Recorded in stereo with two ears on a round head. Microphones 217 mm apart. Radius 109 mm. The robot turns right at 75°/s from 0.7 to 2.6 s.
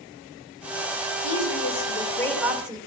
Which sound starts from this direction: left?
A woman speaking, at 1.2 s.